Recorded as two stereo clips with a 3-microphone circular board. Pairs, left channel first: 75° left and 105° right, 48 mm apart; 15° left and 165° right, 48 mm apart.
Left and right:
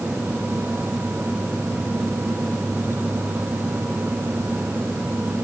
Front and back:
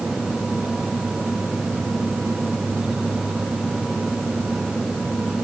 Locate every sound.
Only background noise.